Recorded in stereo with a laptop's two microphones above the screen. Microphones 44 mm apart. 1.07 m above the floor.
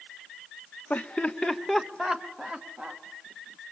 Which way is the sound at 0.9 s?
35° left (ahead or behind).